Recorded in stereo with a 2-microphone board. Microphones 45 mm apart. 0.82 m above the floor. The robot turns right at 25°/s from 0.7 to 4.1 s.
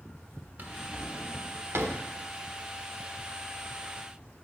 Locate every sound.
0.6 s a drawer: 40° right (ahead or behind), 1.2 m; by 2.0 s 75° right (ahead or behind), 1.2 m